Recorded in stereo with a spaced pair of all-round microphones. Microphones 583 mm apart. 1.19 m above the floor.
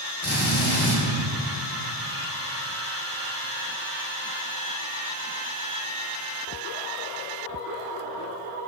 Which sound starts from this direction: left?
A drill, at 0.2 s.